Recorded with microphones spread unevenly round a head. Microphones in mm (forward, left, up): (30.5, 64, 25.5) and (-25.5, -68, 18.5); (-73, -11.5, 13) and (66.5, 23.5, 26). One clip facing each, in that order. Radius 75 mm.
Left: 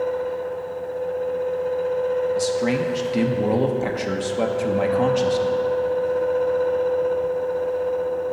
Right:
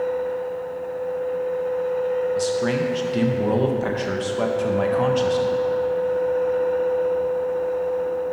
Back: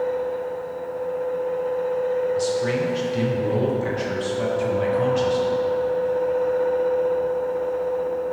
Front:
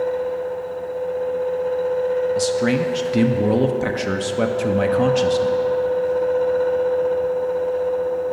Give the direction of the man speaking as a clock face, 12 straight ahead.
12 o'clock.